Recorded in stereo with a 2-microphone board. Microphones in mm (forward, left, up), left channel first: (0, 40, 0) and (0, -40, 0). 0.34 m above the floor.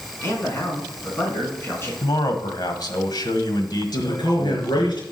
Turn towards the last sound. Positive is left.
turn(degrees=70)  # may be behind; listen again after turning